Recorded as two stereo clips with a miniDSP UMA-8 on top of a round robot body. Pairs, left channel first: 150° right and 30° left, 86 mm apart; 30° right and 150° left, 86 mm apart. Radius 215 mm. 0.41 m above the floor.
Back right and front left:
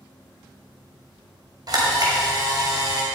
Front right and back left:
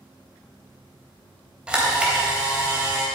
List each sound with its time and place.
1.7 s a camera shutter: 70° left, 3 m